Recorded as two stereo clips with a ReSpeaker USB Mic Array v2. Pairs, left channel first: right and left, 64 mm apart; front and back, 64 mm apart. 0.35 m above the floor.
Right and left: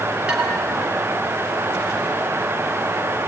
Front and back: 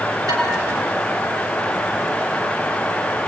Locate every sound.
0.3 s dishes clattering: 160° left, 5.5 m